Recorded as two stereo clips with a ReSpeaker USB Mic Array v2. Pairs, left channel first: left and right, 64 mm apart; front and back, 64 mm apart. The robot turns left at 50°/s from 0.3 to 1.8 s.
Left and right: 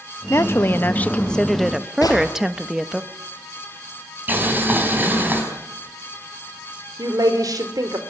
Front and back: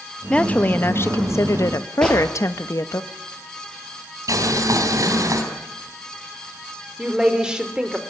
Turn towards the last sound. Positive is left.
turn(degrees=-100)